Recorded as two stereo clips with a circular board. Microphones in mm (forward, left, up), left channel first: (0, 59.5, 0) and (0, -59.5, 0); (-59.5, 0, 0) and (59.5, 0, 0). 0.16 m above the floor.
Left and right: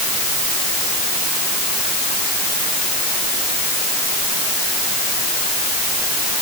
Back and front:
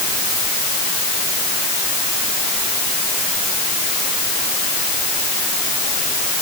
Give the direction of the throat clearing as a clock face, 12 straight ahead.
No throat clearing in this recording.